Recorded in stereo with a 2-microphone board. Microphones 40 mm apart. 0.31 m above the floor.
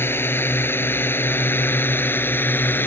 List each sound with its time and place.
0.0 s a drone: 60° left (ahead or behind); by 2.9 s 55° left (ahead or behind)